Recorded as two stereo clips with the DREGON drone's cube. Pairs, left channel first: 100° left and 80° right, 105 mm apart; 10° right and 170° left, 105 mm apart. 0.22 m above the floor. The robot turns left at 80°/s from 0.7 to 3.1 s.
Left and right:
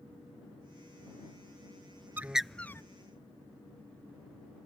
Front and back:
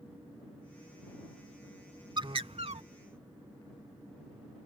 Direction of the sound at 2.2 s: 150° right.